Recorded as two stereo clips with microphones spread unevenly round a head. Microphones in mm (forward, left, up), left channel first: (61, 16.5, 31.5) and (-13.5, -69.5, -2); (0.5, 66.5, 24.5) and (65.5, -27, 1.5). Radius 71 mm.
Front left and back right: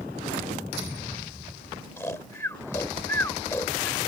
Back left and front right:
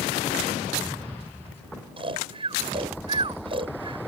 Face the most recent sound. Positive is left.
turn(degrees=-15)